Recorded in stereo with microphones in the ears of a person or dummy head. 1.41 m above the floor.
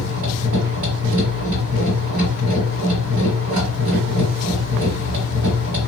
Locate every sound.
0.0 s a machine running: 35° right (ahead or behind), 1.5 m